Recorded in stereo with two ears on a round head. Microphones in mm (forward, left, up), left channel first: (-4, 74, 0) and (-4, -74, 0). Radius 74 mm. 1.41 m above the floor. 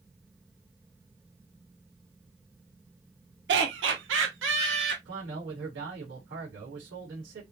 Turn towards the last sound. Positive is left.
turn(degrees=-75)  # may be behind; listen again after turning